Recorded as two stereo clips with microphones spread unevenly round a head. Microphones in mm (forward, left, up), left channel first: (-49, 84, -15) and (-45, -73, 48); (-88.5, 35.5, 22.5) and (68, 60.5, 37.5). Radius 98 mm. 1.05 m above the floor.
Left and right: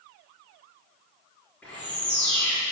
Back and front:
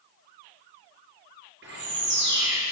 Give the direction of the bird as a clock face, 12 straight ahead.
12 o'clock.